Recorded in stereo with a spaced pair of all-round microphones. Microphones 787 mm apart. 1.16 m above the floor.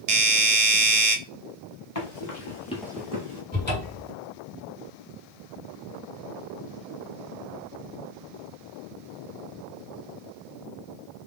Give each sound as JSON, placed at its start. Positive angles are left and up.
{"t": 0.1, "sound": "a doorbell", "side_deg": -50, "distance_m": 0.7}
{"t": 1.9, "sound": "running footsteps", "side_deg": 45, "distance_m": 1.5}
{"t": 3.5, "sound": "a cupboard door", "side_deg": 15, "distance_m": 2.0}